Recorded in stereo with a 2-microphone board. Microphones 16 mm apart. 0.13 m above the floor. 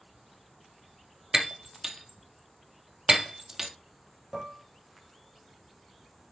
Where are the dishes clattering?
15° right (ahead or behind), 1.9 m.